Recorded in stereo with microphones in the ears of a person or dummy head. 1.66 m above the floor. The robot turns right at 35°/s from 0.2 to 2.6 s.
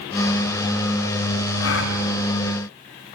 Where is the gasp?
70° left (ahead or behind), 2.5 m; by 2.0 s 60° left (ahead or behind), 2.5 m.